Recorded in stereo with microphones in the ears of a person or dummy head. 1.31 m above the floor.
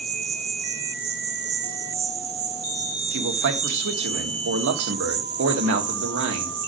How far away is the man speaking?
About 1.7 m.